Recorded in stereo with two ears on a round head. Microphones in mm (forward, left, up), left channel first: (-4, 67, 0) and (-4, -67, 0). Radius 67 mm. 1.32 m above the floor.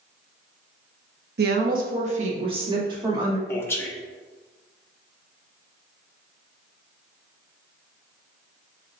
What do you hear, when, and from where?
1.4 s a woman speaking: 70° right (ahead or behind), 0.8 m; by 3.4 s 25° right (ahead or behind), 1.6 m
3.5 s a man speaking: 15° left (ahead or behind), 0.8 m